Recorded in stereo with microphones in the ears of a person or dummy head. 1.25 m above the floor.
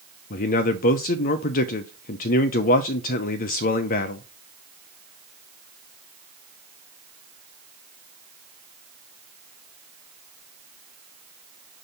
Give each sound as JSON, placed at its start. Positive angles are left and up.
{"t": 0.3, "sound": "a man speaking", "side_deg": 45, "distance_m": 0.5}